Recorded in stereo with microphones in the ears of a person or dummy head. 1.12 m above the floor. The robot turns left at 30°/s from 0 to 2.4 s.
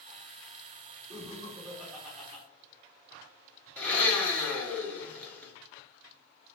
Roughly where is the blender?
Centre.